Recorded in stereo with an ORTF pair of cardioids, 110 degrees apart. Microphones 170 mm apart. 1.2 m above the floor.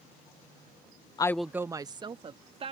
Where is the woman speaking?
25° left; by 2.7 s 35° right.